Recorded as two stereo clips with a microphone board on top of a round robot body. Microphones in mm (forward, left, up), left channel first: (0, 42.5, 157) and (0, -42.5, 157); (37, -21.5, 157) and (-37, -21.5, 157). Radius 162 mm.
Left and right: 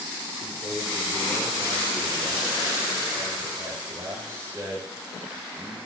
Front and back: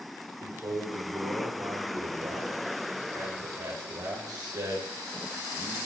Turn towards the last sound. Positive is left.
turn(degrees=-155)